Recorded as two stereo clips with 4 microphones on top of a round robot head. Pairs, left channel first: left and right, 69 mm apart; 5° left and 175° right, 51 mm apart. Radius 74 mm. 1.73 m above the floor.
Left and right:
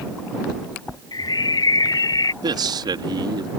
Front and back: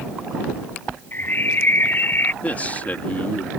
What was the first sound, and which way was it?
A bird, 60° left.